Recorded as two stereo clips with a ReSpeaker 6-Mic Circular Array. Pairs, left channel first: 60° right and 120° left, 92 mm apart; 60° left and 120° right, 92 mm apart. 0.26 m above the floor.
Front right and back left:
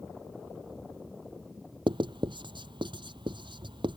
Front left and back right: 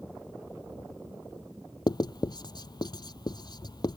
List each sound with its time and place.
1.9 s writing: 95° left